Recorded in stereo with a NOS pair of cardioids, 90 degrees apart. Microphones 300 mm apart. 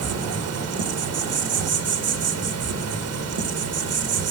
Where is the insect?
60° right, 1.8 m.